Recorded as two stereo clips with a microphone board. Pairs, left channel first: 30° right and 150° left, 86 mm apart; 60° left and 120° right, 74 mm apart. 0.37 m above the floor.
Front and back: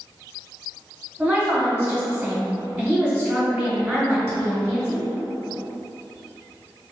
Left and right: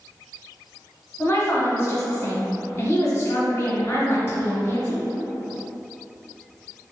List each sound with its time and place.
1.2 s a woman speaking: 85° left, 0.9 m